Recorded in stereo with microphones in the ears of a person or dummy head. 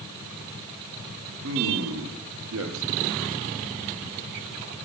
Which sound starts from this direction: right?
A man speaking, at 1.4 s.